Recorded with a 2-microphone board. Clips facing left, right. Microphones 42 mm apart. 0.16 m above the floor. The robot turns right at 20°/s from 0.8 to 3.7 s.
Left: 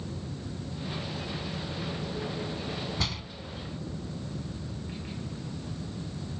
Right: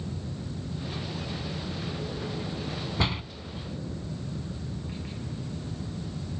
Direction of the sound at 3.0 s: 25° right (ahead or behind).